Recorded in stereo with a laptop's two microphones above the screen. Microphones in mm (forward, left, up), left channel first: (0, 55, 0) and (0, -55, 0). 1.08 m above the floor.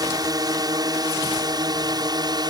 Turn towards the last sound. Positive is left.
turn(degrees=-40)  # may be behind; listen again after turning